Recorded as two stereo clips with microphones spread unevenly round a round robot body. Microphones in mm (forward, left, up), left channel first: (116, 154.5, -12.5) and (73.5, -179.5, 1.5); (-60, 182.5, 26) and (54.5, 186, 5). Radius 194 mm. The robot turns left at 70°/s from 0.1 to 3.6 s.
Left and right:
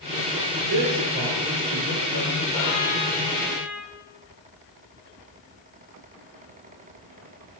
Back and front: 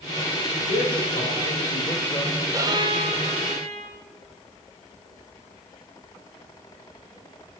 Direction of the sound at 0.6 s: 130° right.